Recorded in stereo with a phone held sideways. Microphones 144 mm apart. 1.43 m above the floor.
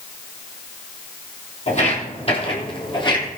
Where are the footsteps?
50° left (ahead or behind), 3.5 m; by 3.3 s 30° left (ahead or behind), 3.5 m.